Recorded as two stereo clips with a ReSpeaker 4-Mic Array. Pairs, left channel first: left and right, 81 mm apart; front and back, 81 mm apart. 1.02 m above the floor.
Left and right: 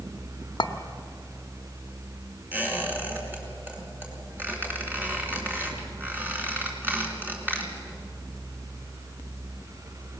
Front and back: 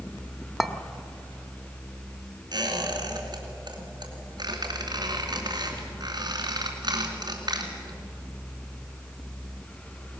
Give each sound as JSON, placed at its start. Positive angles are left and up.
{"t": 0.6, "sound": "a clink", "azimuth_deg": 90, "distance_m": 1.0}
{"t": 2.5, "sound": "a squeak", "azimuth_deg": -155, "distance_m": 2.5}